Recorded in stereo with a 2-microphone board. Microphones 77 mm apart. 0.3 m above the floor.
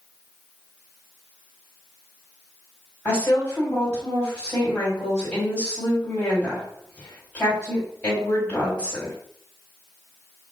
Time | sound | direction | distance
3.0 | a woman speaking | 20° left (ahead or behind) | 1.5 m